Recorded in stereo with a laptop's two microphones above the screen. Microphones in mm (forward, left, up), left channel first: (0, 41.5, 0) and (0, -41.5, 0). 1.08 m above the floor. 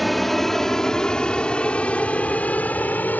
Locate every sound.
0.0 s an aircraft: centre (ahead or behind); by 3.2 s 20° left (ahead or behind)